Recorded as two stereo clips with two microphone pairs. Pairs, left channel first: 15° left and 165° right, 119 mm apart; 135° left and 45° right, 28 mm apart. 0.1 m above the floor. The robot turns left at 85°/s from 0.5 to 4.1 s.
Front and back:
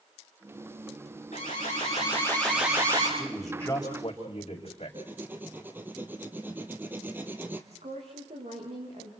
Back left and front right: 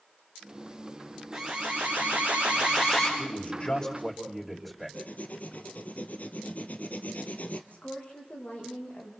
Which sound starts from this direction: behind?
A woman speaking, at 7.7 s.